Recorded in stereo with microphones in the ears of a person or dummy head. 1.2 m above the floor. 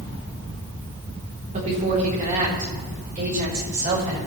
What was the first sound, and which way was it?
A woman speaking, 35° right (ahead or behind).